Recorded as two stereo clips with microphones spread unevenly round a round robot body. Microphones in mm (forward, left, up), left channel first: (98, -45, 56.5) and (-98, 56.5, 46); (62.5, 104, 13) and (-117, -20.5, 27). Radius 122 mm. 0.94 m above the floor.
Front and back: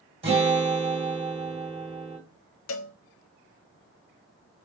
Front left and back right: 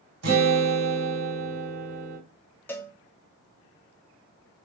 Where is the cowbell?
50° right, 0.5 m.